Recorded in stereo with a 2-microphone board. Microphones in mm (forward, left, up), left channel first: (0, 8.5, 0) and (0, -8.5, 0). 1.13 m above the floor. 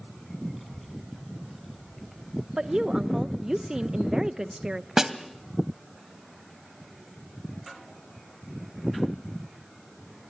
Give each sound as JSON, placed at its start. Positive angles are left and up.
{"t": 0.5, "sound": "a child speaking", "side_deg": -5, "distance_m": 6.0}
{"t": 2.6, "sound": "a woman speaking", "side_deg": -50, "distance_m": 0.8}
{"t": 5.0, "sound": "a snare drum", "side_deg": -30, "distance_m": 1.3}